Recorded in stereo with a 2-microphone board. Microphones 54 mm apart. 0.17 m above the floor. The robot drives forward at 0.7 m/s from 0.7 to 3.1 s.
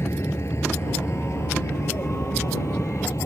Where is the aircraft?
55° left (ahead or behind); by 3.2 s 65° left (ahead or behind).